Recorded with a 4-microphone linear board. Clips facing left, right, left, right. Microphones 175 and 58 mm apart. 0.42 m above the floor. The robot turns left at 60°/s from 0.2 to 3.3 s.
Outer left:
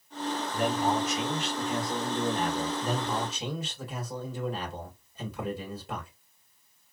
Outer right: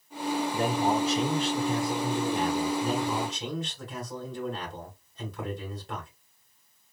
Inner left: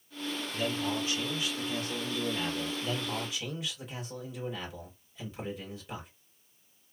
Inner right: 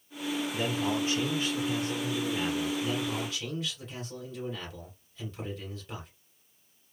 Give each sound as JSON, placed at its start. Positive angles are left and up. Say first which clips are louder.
{"t": 0.5, "sound": "a man speaking", "louder": "even, inner right 1 dB", "azimuth_deg": -45, "distance_m": 0.9}
{"t": 2.8, "sound": "a man speaking", "louder": "outer right 2 dB, inner right 3 dB", "side_deg": -15, "distance_m": 2.0}